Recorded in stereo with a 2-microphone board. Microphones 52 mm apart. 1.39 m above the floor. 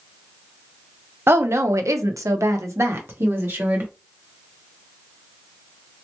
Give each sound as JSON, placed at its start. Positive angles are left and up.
{"t": 1.3, "sound": "a woman speaking", "side_deg": -50, "distance_m": 0.7}